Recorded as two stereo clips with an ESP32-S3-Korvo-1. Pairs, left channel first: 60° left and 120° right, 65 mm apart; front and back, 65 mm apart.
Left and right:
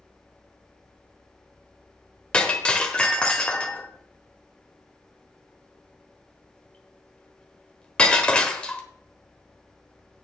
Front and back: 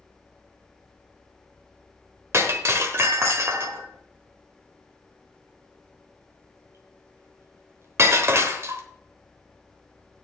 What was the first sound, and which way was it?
Breaking glass, 135° left.